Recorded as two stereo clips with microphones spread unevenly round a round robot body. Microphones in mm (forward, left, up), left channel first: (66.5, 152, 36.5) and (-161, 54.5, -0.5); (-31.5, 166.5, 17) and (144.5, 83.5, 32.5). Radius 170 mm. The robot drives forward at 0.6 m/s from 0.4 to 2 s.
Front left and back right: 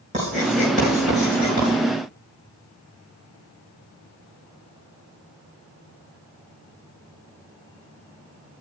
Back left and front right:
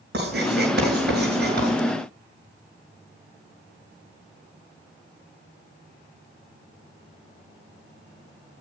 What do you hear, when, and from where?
0.1 s writing: 85° right, 7.5 m; by 1.7 s 90° right, 7.5 m